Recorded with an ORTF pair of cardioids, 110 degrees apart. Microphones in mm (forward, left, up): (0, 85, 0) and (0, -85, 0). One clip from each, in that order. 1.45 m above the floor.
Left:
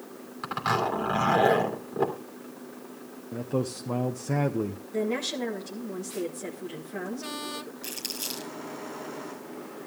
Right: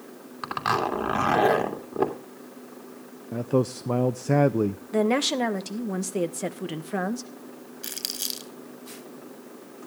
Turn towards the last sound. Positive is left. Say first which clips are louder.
# right 5 dB
turn(degrees=-40)